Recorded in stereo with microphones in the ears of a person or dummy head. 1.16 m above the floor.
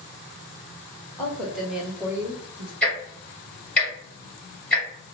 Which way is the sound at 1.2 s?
5° left (ahead or behind).